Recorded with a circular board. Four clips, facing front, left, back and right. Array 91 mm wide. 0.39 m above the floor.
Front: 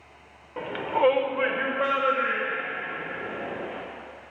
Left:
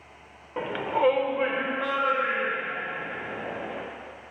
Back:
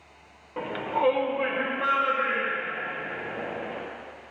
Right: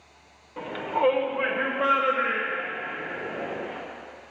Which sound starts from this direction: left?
A shout, at 0.6 s.